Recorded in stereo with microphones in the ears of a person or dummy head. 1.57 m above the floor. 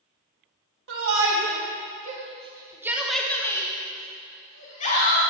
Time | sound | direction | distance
0.9 | a shout | 75° right (ahead or behind) | 1.7 m